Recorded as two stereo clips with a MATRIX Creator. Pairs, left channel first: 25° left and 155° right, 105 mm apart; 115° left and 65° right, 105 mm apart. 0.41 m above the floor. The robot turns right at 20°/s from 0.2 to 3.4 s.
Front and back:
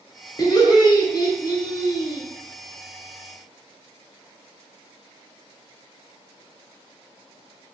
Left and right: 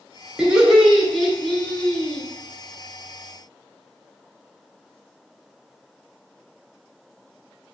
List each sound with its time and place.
0.4 s laughter: 5° left, 1.0 m; by 2.2 s 45° left, 1.0 m